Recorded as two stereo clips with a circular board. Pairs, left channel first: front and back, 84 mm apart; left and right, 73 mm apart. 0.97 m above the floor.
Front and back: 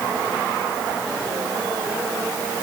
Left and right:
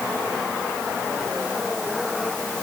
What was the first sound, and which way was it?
Only background noise.